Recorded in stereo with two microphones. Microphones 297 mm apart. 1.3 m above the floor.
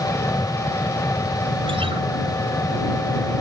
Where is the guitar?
15° right (ahead or behind).